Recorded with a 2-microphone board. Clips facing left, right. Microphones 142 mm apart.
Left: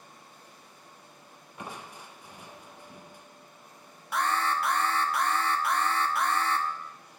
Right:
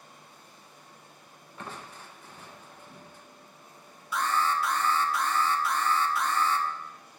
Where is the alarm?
60° left (ahead or behind), 0.8 m.